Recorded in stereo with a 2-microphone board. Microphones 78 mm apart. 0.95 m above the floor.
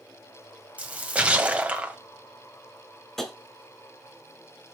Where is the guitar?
I don't hear a guitar.